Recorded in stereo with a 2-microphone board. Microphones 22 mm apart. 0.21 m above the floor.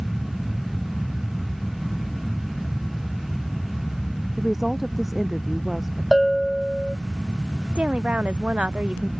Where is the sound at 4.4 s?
5° right (ahead or behind).